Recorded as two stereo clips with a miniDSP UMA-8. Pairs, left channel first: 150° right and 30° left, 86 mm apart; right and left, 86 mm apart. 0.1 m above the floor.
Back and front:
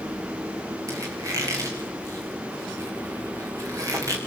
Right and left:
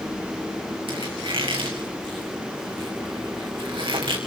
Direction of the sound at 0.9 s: 80° left.